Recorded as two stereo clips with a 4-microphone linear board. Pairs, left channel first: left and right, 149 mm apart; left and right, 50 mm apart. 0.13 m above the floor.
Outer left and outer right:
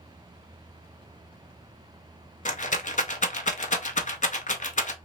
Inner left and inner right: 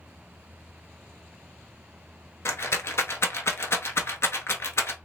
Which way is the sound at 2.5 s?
55° left (ahead or behind).